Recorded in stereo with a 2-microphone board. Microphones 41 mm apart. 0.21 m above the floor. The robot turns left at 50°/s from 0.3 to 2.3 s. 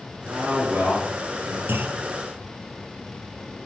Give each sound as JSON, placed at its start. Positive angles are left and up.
{"t": 0.2, "sound": "a man speaking", "azimuth_deg": -110, "distance_m": 3.0}
{"t": 1.7, "sound": "a clunk", "side_deg": -70, "distance_m": 0.7}